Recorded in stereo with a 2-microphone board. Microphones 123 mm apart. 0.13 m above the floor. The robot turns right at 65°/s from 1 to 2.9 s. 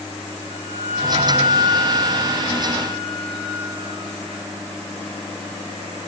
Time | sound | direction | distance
0.5 | a flute | 55° left | 9 m